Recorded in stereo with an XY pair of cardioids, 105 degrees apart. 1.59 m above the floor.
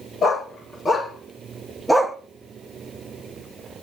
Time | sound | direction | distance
0.2 | a dog barking | 40° left | 3.5 m